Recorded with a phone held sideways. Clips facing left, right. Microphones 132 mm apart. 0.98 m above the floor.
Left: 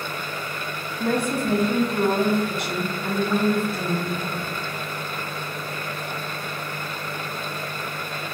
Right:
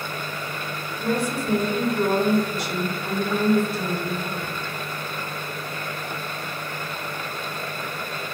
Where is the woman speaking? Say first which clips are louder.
Left 2 dB; 60° left (ahead or behind), 1.4 m.